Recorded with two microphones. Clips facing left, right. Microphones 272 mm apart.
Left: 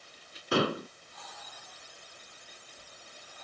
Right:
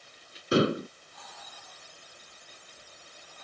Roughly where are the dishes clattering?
Right.